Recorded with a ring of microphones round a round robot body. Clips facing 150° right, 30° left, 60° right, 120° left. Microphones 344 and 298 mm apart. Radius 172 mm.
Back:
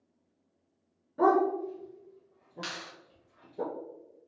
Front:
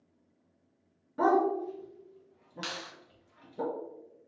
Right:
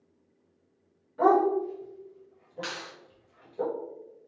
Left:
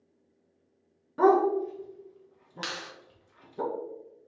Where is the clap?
105° left, 1.7 m.